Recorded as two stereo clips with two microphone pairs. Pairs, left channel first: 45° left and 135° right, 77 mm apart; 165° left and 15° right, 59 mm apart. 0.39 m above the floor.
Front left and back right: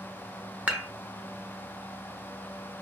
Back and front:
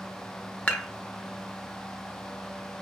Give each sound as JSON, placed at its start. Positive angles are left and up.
{"t": 0.7, "sound": "dishes clattering", "azimuth_deg": -165, "distance_m": 0.5}